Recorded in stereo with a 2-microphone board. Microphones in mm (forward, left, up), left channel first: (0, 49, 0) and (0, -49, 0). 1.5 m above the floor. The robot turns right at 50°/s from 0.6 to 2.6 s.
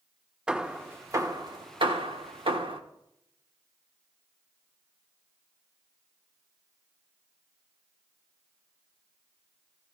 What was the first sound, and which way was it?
Hammering, 10° right (ahead or behind).